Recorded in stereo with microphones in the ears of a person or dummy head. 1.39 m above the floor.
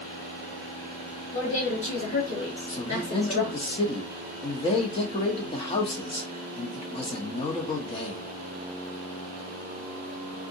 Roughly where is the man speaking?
Left.